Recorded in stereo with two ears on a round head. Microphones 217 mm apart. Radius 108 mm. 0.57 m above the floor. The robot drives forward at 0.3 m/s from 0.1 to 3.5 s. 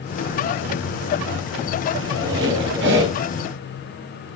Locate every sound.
1.9 s a squeak: 55° right (ahead or behind), 2.5 m; by 3.1 s 50° right (ahead or behind), 3 m